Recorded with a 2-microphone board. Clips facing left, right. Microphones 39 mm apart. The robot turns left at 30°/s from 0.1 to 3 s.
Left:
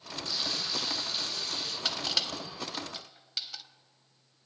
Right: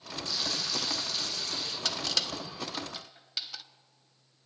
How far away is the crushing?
About 0.6 m.